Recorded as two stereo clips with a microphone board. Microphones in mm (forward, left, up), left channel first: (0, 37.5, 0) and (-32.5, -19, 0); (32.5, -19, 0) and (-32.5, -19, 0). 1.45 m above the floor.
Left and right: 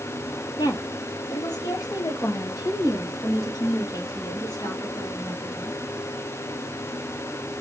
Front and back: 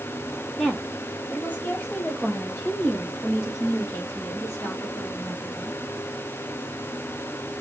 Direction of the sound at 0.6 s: 85° left.